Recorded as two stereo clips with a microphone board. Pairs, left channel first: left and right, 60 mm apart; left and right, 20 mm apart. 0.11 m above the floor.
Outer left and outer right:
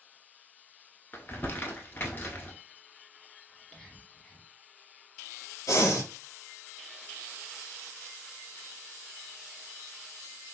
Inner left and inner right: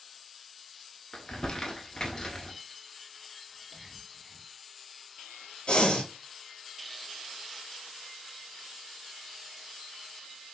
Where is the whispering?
15° left (ahead or behind), 1.2 m.